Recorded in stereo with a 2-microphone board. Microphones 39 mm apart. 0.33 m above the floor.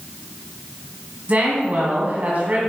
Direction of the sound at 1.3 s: 40° right (ahead or behind).